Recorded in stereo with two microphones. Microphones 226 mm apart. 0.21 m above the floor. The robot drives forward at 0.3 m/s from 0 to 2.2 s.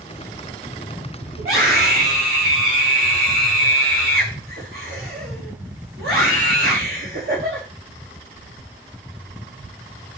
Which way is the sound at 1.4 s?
70° right (ahead or behind).